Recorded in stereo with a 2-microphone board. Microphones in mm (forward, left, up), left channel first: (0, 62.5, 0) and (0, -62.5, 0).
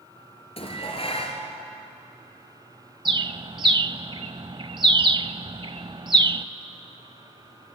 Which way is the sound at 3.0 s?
40° right (ahead or behind).